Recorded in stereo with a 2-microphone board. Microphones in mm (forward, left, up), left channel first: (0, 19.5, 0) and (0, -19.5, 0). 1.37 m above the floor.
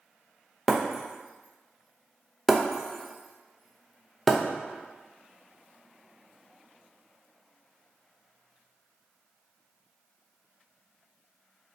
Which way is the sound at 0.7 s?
Centre (ahead or behind).